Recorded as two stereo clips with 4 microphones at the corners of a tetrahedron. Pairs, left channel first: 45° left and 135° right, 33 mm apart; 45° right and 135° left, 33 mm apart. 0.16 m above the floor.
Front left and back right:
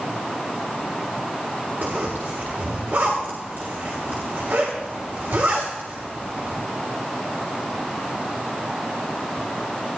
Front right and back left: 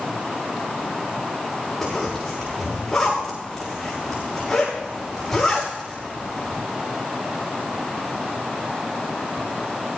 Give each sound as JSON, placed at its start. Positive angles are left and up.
{"t": 1.8, "sound": "a zipper", "azimuth_deg": -125, "distance_m": 8.5}